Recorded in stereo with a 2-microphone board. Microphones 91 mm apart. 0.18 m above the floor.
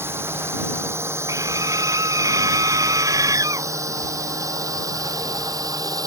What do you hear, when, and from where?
0.0 s a drone: 25° right (ahead or behind); by 6.1 s 40° right (ahead or behind)
1.3 s a scream: 40° right (ahead or behind)